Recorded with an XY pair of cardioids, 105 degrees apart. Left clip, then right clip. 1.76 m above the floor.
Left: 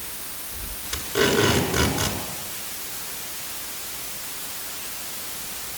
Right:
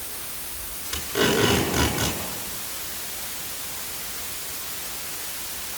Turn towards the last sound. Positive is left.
turn(degrees=15)